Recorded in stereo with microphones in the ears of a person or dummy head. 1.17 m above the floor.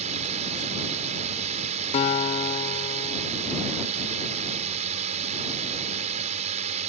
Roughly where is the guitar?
Left.